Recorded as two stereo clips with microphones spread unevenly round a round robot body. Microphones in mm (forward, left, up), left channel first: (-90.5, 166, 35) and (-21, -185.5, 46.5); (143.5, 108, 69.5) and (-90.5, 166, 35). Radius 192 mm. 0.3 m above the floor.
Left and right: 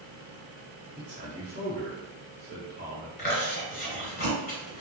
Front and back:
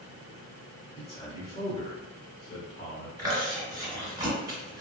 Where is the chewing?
130° left, 1.3 m.